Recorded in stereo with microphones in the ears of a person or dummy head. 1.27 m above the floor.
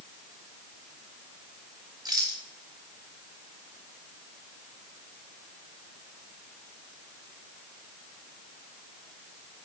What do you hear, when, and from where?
2.0 s a rattle: 20° right (ahead or behind), 1.4 m